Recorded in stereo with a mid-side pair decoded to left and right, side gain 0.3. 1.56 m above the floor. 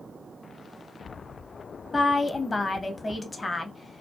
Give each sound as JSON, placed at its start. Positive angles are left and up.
{"t": 1.9, "sound": "a woman speaking", "azimuth_deg": 35, "distance_m": 0.8}